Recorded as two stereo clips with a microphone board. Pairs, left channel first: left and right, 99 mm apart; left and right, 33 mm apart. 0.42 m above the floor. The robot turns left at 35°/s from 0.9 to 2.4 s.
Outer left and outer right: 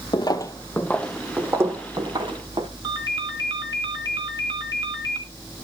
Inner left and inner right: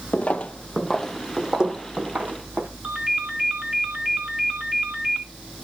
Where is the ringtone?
45° right (ahead or behind), 2.5 m.